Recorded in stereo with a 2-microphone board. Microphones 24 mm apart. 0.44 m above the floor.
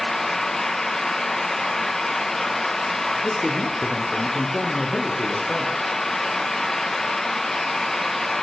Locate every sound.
3.2 s a man speaking: 25° left (ahead or behind), 9 m